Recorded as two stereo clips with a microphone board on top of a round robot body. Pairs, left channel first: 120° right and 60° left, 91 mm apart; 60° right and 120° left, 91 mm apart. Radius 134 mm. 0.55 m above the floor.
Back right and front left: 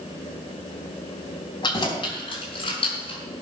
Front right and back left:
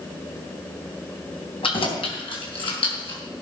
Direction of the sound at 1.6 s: 80° right.